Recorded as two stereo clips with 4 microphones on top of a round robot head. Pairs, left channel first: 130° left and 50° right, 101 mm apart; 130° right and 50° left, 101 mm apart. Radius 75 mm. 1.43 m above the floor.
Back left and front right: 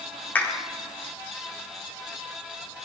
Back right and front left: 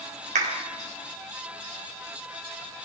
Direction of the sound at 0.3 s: 55° left.